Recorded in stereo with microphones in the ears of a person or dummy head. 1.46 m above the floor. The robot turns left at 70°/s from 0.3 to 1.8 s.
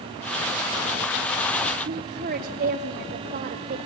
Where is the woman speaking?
45° right (ahead or behind), 0.9 m.